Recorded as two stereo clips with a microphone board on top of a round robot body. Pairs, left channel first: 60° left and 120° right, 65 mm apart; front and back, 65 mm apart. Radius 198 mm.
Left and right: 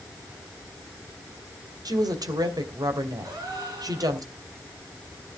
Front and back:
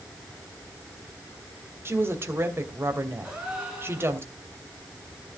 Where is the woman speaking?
125° right, 2.5 m.